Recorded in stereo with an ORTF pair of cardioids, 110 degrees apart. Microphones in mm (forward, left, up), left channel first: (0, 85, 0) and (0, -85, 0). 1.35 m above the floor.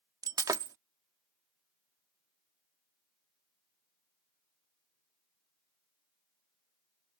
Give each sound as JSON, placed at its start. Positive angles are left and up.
{"t": 0.2, "sound": "breaking glass", "azimuth_deg": -20}